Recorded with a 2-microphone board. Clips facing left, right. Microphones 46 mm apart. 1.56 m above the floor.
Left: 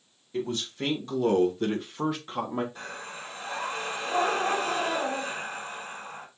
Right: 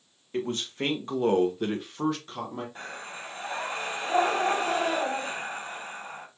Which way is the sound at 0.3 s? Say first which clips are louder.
Right 1 dB; 50° right (ahead or behind).